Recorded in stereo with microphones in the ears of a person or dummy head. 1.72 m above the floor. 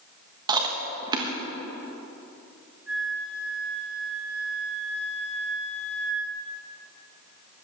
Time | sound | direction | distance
0.5 | chewing | 20° right (ahead or behind) | 1.3 m
2.9 | a flute | 10° right (ahead or behind) | 3.5 m